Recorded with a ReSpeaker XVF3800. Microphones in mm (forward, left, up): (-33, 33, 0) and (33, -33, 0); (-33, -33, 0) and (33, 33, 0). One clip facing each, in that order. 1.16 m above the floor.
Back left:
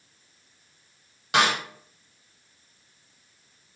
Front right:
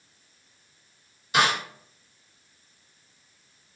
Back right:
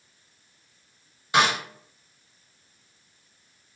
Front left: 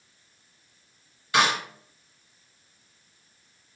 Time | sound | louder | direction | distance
1.3 | a snare drum | back left 1 dB, back right 1 dB | 155° left | 1.4 m